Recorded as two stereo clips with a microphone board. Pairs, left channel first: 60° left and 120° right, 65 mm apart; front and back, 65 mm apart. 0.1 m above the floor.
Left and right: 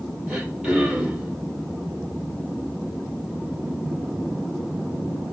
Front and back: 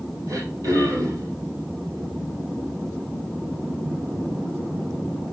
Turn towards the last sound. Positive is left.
turn(degrees=170)